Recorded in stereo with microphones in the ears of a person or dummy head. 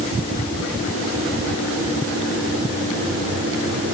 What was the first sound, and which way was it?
Only background noise.